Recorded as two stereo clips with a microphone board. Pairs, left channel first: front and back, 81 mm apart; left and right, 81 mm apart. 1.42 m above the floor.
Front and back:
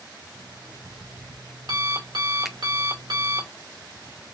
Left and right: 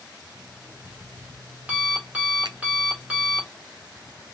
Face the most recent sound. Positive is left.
turn(degrees=-90)